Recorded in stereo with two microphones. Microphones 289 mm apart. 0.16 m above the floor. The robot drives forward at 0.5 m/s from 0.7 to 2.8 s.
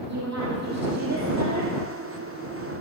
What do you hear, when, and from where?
0.1 s a woman speaking: 65° right (ahead or behind), 6.5 m; by 1.7 s 60° right (ahead or behind), 6.5 m